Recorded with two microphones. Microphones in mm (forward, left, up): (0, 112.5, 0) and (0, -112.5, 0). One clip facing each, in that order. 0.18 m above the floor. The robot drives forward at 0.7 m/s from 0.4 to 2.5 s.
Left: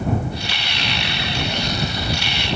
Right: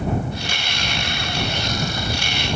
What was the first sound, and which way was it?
Only background noise.